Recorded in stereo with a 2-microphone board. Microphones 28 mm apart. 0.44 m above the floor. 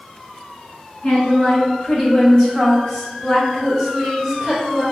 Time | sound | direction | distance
1.0 | a woman speaking | 50° left (ahead or behind) | 1.8 m